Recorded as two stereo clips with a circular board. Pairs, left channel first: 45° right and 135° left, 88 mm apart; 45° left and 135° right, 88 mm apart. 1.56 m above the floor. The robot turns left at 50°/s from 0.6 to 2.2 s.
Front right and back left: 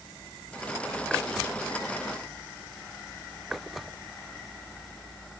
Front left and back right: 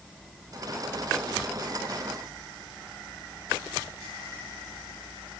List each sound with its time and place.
Only background noise.